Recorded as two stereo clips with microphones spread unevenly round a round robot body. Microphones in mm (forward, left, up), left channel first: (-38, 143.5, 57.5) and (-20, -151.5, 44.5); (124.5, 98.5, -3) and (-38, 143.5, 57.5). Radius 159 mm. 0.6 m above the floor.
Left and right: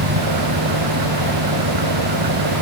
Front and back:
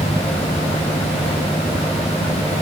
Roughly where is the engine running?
Right.